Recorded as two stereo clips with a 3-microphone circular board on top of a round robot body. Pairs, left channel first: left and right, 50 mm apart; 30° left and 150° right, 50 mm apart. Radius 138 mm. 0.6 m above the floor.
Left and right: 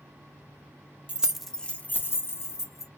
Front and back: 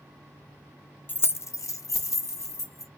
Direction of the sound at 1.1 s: 25° right.